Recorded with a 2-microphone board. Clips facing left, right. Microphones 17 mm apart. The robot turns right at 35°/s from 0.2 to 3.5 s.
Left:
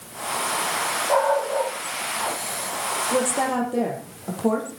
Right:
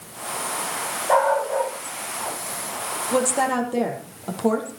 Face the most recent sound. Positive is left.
turn(degrees=-20)  # may be behind; listen again after turning